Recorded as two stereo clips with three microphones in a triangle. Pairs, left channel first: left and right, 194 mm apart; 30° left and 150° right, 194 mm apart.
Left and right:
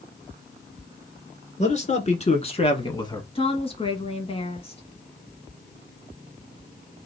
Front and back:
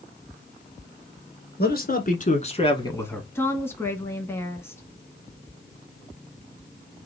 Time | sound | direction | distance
1.6 | a man speaking | 45° left | 2.5 m
3.4 | a woman speaking | 95° left | 1.8 m